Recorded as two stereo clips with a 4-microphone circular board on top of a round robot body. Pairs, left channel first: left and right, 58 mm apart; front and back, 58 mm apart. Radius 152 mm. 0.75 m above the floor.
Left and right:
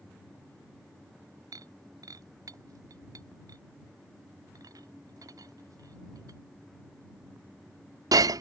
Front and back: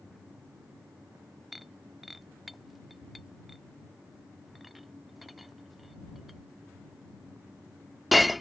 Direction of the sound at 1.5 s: 90° right.